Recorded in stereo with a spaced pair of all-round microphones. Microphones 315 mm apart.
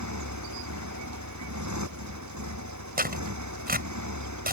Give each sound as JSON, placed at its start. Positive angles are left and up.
{"t": 0.0, "sound": "a motorcycle", "side_deg": -65}
{"t": 3.0, "sound": "tearing paper", "side_deg": -30}